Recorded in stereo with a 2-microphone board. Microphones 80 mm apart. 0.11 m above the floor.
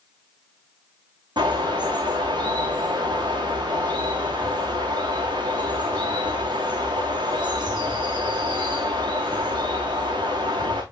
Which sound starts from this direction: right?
A bird, at 1.4 s.